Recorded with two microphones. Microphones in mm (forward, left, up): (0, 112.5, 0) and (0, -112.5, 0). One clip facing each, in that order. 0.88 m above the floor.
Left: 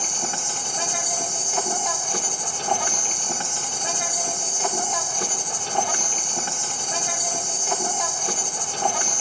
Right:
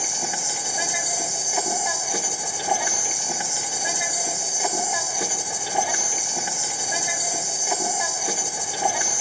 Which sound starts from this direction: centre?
An insect, at 0.0 s.